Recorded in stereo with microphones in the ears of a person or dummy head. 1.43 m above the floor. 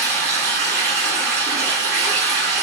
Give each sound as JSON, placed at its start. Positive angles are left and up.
{"t": 0.0, "sound": "running water", "side_deg": -70, "distance_m": 1.4}